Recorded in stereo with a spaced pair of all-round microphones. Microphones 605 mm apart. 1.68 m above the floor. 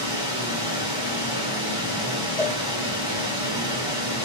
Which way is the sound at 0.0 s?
10° right (ahead or behind).